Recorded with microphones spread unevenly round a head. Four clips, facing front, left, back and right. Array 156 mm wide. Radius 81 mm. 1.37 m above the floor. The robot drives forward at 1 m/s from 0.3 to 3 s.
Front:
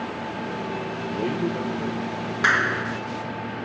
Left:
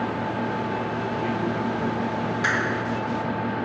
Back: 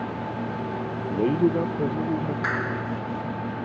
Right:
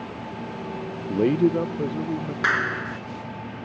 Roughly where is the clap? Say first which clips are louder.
Right 3 dB, front 4 dB; ahead.